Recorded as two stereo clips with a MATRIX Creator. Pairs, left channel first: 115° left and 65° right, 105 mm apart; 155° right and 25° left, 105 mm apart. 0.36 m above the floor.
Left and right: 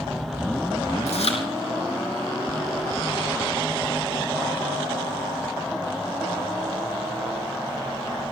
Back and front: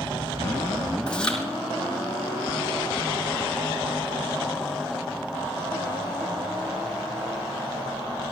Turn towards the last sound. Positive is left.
turn(degrees=120)